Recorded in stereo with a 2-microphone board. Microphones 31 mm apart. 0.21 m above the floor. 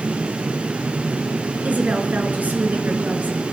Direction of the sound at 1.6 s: 60° right (ahead or behind).